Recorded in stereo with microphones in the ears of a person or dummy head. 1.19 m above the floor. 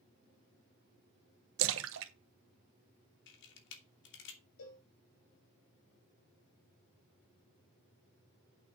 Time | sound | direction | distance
1.6 | a splash | 70° right (ahead or behind) | 1.1 m
3.3 | a camera shutter | 65° left (ahead or behind) | 3 m
4.6 | a cowbell | 70° left (ahead or behind) | 4.5 m